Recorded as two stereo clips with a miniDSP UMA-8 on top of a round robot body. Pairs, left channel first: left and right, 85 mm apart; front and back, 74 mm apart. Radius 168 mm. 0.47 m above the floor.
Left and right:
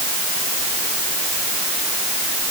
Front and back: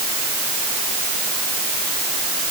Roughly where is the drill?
I don't hear a drill.